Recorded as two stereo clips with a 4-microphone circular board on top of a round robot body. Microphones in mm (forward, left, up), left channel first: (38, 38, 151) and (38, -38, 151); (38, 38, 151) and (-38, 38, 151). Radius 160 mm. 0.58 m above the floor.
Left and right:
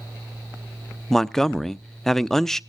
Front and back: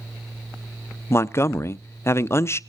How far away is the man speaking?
About 0.7 m.